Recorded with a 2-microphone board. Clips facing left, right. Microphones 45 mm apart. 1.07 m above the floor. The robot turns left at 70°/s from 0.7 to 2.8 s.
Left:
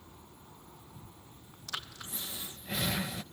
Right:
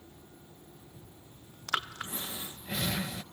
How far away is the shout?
No shout in this recording.